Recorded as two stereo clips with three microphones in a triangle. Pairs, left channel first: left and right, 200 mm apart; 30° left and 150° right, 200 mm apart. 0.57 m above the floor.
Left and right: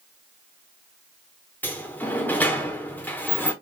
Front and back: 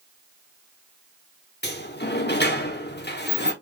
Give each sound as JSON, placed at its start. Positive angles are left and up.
{"t": 1.6, "sound": "a sliding door", "azimuth_deg": 10, "distance_m": 1.0}